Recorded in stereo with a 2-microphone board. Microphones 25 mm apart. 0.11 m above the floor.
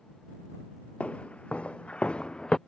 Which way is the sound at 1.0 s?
55° left (ahead or behind).